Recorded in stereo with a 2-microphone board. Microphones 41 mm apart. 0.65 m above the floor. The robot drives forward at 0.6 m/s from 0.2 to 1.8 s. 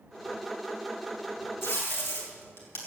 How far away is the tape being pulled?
About 5 m.